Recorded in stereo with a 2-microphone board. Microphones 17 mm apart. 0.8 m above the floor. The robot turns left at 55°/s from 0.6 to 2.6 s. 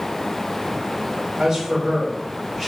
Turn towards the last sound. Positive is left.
turn(degrees=175)